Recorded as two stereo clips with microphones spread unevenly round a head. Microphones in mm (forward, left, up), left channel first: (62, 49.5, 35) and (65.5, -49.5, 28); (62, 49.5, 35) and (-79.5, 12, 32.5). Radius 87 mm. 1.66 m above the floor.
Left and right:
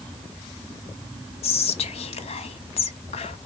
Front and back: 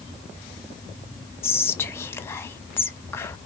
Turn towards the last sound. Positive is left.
turn(degrees=90)